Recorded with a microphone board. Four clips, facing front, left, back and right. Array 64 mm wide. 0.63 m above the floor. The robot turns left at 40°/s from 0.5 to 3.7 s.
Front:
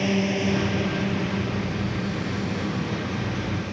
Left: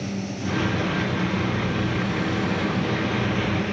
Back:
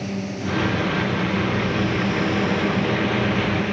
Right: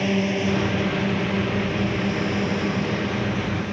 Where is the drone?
60° right; by 3.7 s 170° left.